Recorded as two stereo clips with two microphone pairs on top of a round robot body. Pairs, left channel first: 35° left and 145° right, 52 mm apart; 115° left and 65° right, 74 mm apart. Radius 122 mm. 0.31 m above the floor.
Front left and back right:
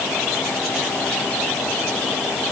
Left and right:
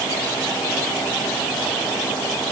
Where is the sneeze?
I don't hear a sneeze.